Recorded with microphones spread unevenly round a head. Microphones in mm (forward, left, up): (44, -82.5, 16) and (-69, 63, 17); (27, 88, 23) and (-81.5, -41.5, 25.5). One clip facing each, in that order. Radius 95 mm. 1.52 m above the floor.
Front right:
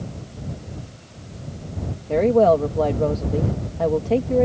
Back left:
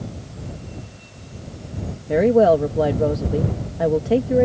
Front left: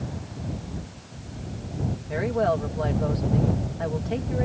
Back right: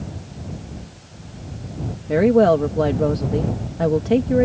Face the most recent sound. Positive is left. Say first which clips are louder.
# back left 1 dB, back right 11 dB
turn(degrees=-155)